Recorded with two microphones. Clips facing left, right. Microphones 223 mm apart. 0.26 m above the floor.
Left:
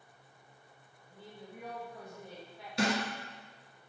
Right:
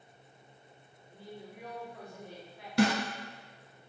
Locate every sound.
1.1 s a woman speaking: 20° right (ahead or behind), 1.6 m
2.8 s a snare drum: 65° right (ahead or behind), 1.0 m